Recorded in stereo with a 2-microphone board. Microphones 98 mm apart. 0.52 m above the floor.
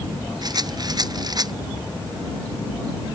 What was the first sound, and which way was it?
A rattle, 45° right (ahead or behind).